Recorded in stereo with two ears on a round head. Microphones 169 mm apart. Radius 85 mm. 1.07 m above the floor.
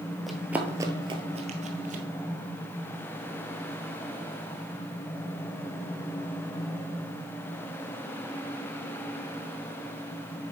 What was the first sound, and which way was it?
Running footsteps, centre (ahead or behind).